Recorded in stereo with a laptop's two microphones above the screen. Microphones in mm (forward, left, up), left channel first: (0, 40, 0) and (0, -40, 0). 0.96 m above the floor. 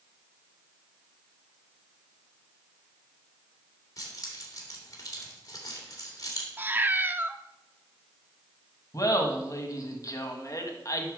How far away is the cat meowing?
About 0.5 m.